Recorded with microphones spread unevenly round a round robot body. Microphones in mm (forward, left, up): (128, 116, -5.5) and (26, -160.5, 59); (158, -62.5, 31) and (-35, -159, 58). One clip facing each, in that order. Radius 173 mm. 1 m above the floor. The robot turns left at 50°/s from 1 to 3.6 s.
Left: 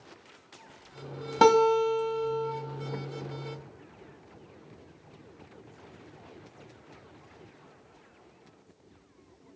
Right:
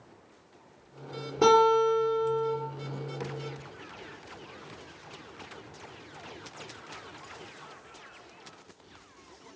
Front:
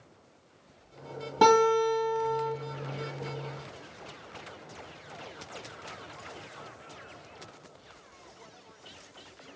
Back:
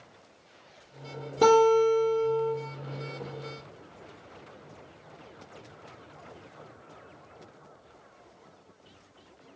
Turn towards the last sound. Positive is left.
turn(degrees=-30)